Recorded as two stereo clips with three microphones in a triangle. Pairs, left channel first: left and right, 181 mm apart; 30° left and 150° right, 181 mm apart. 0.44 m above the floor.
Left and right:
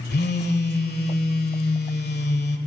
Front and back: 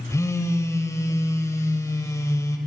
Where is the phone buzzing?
100° left, 1.6 m.